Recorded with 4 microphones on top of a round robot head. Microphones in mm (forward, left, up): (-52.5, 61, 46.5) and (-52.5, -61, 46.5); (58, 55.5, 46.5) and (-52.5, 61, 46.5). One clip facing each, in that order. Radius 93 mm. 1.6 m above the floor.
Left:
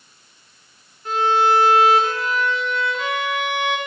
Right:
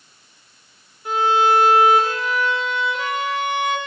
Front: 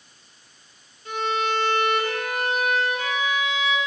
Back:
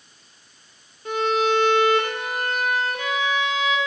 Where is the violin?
165° right, 0.8 m.